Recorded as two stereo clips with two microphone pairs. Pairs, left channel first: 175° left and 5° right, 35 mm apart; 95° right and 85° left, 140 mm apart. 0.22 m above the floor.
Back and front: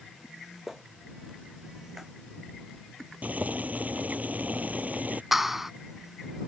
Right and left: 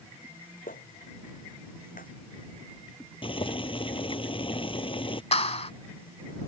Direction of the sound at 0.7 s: 85° right.